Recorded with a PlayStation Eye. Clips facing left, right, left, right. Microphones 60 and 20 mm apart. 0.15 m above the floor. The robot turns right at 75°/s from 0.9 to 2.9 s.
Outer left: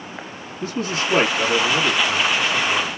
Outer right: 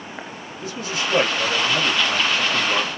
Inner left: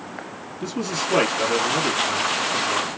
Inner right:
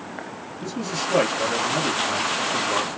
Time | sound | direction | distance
0.6 | a man speaking | 90° left | 1.9 m